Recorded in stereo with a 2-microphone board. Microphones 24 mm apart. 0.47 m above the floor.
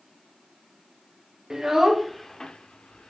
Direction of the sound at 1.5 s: 25° right (ahead or behind).